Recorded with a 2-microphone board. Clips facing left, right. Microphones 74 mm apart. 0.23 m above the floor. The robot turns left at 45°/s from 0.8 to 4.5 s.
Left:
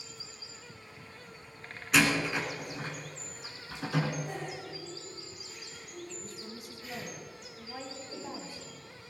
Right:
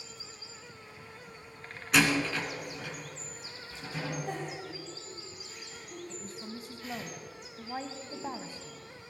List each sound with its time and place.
1.9 s a door slam: centre (ahead or behind), 2 m; by 4.1 s 60° left (ahead or behind), 2 m
4.3 s a giggle: 80° right, 6.5 m; by 7.1 s 75° right (ahead or behind), 6.5 m
6.1 s a woman speaking: 30° right (ahead or behind), 1.3 m